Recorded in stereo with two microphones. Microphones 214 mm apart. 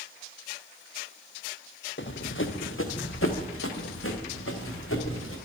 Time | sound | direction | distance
2.0 | running footsteps | 60° left (ahead or behind) | 0.9 m